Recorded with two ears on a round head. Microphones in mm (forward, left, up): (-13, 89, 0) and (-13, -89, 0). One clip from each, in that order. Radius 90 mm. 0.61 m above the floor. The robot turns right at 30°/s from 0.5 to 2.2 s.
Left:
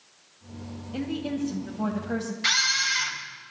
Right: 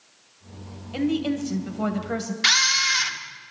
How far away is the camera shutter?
About 1.9 m.